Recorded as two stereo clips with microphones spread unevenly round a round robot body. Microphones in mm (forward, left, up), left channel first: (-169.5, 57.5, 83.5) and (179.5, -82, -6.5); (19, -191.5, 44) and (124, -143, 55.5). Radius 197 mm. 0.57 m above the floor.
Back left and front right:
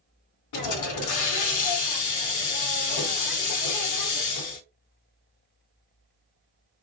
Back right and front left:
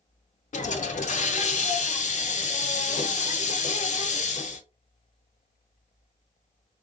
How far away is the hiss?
About 0.8 m.